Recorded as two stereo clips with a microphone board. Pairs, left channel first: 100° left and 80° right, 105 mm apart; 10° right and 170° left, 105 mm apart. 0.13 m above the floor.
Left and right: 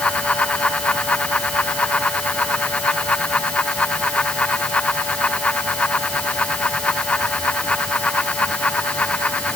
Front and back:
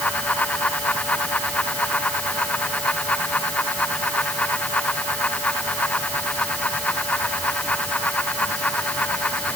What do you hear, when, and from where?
Only background noise.